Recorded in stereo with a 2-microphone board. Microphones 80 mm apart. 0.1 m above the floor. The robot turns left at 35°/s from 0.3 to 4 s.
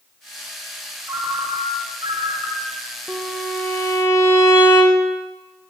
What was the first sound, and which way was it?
A ringtone, 35° right.